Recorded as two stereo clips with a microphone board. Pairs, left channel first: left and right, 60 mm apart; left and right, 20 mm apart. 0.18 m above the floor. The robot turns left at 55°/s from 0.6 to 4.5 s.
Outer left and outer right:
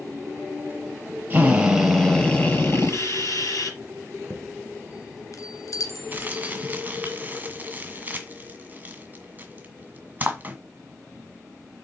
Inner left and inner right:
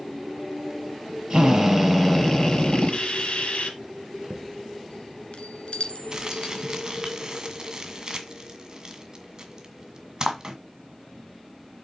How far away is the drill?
About 4.5 m.